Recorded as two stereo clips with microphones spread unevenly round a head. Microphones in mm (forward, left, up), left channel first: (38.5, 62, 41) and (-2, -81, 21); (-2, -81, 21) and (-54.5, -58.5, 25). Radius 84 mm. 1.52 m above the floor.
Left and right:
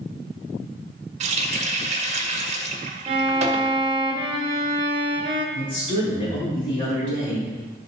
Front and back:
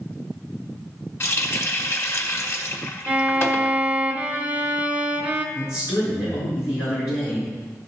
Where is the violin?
160° right, 0.7 m.